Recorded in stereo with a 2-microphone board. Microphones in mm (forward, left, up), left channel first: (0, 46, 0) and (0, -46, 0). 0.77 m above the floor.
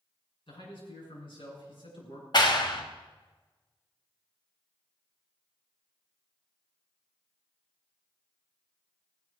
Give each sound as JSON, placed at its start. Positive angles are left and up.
{"t": 0.5, "sound": "a man speaking", "side_deg": 60, "distance_m": 6.5}
{"t": 2.3, "sound": "a clap", "side_deg": 50, "distance_m": 1.4}